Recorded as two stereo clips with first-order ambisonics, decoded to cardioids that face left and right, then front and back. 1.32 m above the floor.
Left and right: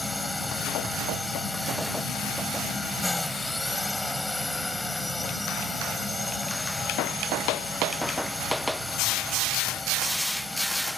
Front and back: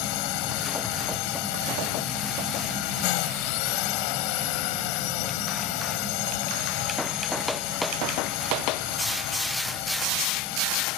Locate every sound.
0.0 s a drone: 5° left